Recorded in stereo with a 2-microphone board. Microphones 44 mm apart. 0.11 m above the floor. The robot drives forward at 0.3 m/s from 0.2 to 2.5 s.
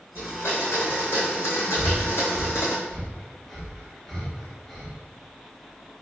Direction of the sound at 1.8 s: 10° left (ahead or behind).